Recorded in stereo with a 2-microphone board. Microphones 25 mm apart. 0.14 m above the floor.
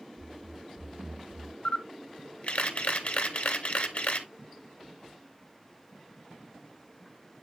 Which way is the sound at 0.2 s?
85° right.